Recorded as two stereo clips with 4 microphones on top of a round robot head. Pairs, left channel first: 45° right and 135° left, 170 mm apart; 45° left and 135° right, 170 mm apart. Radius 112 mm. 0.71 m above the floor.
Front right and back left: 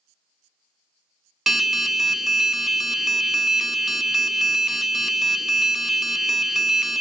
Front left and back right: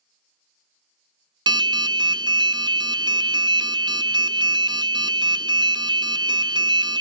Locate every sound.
1.5 s an alarm: 140° right, 0.5 m